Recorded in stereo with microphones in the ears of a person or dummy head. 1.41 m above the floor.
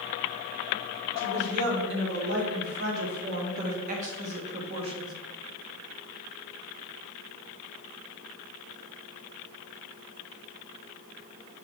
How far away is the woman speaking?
About 3.5 m.